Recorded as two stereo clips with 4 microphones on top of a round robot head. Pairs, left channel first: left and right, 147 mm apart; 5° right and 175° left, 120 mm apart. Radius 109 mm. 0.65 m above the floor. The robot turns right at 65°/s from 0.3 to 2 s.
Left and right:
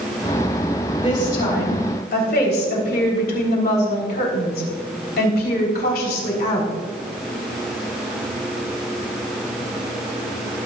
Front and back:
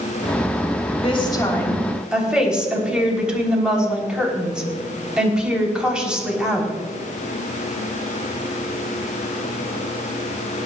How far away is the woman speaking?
About 3.5 m.